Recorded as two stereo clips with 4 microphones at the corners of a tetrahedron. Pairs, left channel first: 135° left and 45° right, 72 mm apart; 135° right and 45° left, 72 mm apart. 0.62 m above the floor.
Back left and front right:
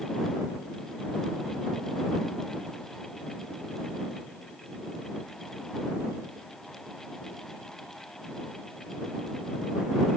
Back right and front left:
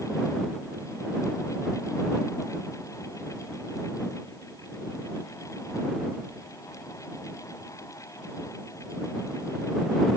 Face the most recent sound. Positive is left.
No sound to turn to.